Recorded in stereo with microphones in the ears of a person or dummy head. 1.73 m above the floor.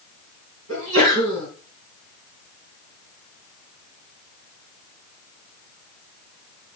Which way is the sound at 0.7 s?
80° right.